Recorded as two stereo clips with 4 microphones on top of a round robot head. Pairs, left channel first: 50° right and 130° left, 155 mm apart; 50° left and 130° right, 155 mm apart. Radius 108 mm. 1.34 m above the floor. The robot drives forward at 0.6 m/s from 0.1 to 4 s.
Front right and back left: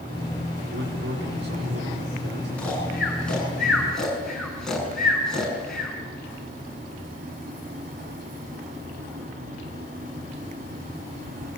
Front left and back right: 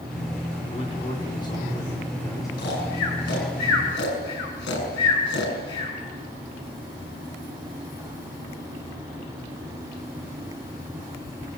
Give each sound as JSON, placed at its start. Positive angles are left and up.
{"t": 0.7, "sound": "a man speaking", "azimuth_deg": 110, "distance_m": 4.5}
{"t": 2.6, "sound": "snoring", "azimuth_deg": 30, "distance_m": 7.5}